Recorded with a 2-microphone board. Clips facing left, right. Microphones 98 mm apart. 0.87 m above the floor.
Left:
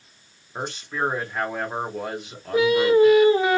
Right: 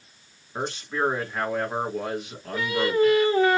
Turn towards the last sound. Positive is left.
turn(degrees=15)  # may be behind; listen again after turning